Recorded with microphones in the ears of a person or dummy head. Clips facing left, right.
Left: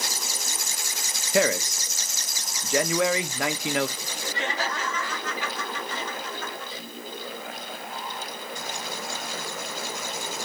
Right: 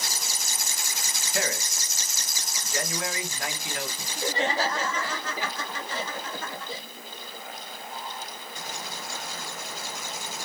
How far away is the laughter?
About 1.7 m.